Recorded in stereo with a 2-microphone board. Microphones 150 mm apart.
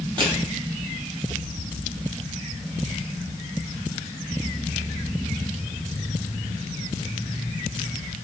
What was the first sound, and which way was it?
Crushing, 30° right (ahead or behind).